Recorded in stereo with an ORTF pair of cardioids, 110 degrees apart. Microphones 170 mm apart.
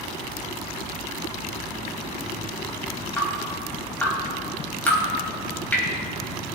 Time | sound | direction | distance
3.2 | dripping | 10° left | 3.5 m